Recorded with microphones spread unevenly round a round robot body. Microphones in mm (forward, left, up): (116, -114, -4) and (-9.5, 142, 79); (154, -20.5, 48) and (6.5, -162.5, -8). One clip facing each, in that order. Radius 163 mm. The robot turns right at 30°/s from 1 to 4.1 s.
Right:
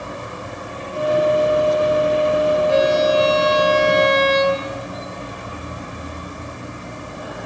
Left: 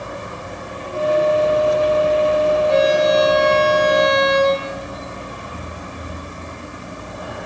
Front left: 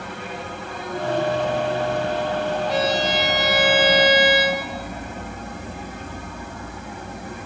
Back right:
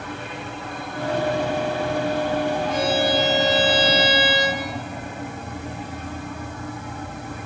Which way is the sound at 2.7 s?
20° left.